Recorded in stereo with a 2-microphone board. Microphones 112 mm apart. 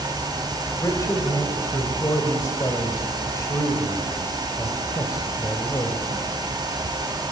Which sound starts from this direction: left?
A man speaking, at 0.8 s.